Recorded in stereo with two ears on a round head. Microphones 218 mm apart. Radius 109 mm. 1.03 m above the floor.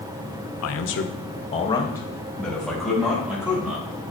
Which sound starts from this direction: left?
A man speaking, at 0.6 s.